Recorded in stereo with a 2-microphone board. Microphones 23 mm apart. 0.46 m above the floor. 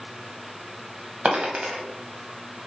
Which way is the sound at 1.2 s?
55° right (ahead or behind).